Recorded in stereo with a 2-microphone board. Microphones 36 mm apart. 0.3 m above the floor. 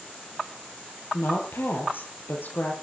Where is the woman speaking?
80° left, 9.5 m; by 2.7 s 75° left (ahead or behind), 8.5 m.